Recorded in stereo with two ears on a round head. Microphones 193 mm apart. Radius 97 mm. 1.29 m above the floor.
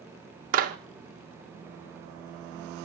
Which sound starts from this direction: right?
A clap, at 0.5 s.